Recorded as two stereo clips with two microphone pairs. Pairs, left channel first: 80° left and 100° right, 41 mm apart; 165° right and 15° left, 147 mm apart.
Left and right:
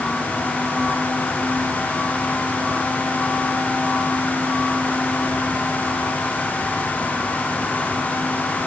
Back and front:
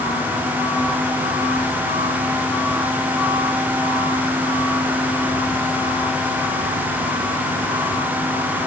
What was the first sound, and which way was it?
Only background noise.